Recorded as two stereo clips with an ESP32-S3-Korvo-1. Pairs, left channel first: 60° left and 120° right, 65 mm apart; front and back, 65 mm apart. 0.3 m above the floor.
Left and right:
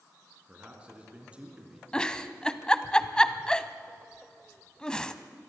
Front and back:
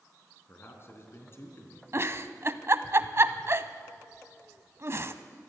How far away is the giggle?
About 0.8 m.